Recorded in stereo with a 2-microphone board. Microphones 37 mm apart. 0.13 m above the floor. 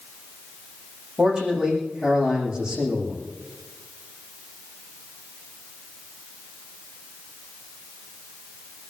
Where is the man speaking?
20° right (ahead or behind), 7 m.